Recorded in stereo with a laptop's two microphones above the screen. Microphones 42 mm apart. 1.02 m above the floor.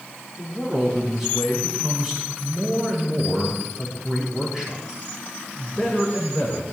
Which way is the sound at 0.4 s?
10° right (ahead or behind).